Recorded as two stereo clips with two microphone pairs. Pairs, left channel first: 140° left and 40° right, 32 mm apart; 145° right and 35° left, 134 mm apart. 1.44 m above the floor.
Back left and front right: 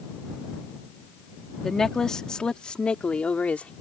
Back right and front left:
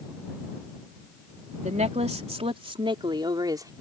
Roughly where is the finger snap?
I don't hear a finger snap.